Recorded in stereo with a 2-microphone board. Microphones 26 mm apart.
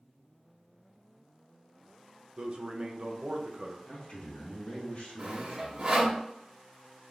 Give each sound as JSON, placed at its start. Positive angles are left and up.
{"t": 2.4, "sound": "a man speaking", "side_deg": -40, "distance_m": 0.5}
{"t": 3.9, "sound": "a man speaking", "side_deg": 60, "distance_m": 0.9}
{"t": 5.2, "sound": "sawing", "side_deg": -35, "distance_m": 0.7}